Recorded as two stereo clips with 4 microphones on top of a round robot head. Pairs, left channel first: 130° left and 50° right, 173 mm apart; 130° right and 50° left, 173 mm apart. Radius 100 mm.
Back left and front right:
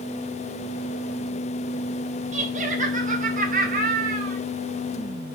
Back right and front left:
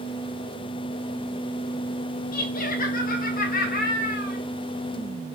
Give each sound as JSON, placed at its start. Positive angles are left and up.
{"t": 2.3, "sound": "laughter", "azimuth_deg": -95, "distance_m": 3.0}